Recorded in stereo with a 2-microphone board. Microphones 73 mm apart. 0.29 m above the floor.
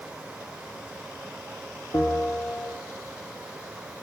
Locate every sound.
1.9 s a bell: 50° left (ahead or behind), 2.5 m